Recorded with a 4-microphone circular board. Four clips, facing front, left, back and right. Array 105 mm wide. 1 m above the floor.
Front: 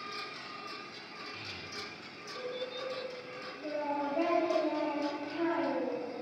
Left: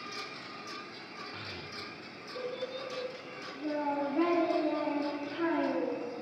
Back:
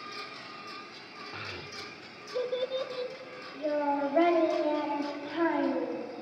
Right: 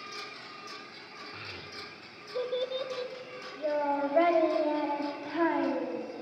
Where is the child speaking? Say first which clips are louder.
Left 1 dB, back 3 dB; 175° right, 2.5 m; by 6.0 s 115° right, 6 m.